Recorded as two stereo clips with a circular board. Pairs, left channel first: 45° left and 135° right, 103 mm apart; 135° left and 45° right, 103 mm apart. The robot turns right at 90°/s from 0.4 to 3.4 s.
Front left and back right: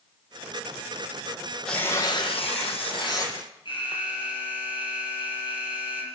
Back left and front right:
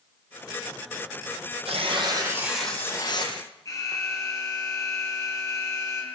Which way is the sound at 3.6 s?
80° left.